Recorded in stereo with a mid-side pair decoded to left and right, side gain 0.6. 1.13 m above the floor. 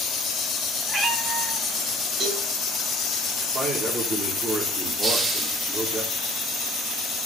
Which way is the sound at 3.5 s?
20° right.